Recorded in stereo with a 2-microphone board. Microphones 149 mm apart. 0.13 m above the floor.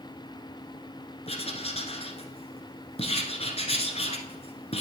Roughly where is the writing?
Left.